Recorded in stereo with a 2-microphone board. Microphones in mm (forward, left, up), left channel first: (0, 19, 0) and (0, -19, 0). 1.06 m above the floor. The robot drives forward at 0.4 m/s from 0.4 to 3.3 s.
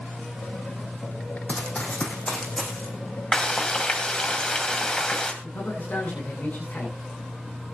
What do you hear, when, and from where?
1.5 s running footsteps: 40° left (ahead or behind), 3.5 m; by 2.9 s 20° left (ahead or behind), 4.5 m
3.3 s frying: 20° left (ahead or behind), 2.5 m
5.4 s a man speaking: 50° left (ahead or behind), 9.5 m